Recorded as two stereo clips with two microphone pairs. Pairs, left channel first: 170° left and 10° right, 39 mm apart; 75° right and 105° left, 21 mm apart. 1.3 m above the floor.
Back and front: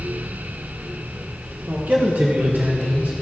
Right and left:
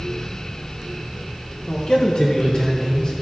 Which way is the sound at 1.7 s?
40° right.